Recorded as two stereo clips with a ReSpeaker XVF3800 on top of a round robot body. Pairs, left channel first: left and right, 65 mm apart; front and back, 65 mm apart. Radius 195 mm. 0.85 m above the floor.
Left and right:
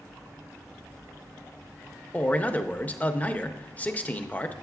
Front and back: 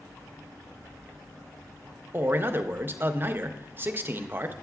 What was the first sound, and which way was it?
A man speaking, 145° left.